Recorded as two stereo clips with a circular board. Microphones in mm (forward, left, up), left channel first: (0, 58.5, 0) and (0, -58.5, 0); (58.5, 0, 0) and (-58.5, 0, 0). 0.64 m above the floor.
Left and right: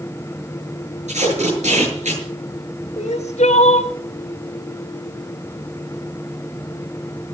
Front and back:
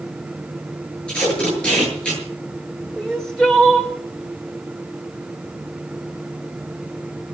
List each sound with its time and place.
1.1 s tape being pulled: 80° right, 8 m
3.0 s crying: 85° left, 2 m